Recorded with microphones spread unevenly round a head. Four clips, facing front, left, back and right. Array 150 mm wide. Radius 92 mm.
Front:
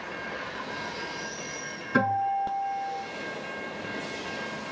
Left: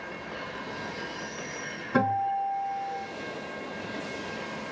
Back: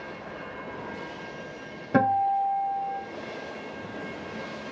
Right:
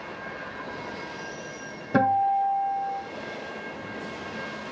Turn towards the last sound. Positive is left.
turn(degrees=-155)